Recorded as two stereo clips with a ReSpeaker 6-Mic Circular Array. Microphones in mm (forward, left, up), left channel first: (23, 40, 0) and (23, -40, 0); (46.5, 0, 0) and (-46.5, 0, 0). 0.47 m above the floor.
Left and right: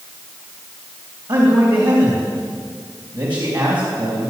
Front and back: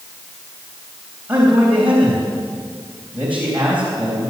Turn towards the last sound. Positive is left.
turn(degrees=-105)